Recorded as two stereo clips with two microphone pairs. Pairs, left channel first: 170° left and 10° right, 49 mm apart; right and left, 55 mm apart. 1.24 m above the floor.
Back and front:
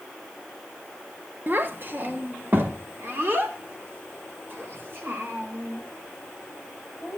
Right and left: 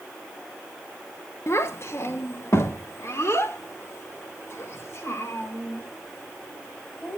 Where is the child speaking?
55° right, 1.4 m; by 7.2 s 50° right, 6.5 m.